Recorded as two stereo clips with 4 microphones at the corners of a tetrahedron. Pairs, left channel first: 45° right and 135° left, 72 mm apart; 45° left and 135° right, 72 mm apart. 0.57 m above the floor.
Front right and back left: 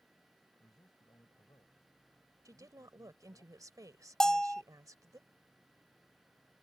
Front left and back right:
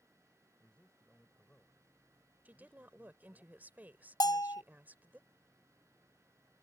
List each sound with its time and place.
0.6 s a man speaking: 30° right
2.5 s a woman speaking: 160° left
4.2 s a bell: 35° left